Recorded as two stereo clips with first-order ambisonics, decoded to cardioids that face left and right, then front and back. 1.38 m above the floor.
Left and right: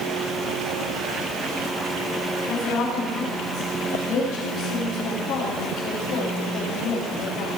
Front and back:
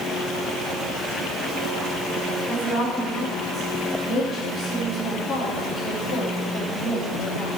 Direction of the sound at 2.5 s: 60° left.